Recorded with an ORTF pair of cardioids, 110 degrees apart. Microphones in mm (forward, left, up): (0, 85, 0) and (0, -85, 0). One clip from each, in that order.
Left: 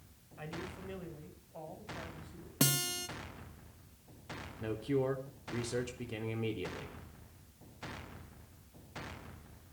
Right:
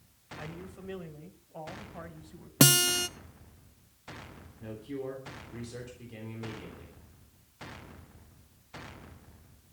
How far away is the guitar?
About 0.9 m.